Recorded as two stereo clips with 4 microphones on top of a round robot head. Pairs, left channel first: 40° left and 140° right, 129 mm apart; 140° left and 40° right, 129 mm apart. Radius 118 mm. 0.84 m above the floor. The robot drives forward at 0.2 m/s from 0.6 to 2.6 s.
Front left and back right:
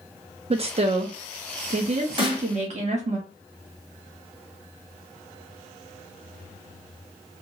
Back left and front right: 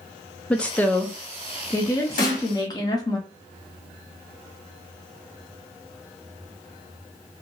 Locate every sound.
0.5 s a woman speaking: 140° right, 0.6 m; by 3.2 s 160° right, 0.8 m
2.2 s a snare drum: 165° left, 1.5 m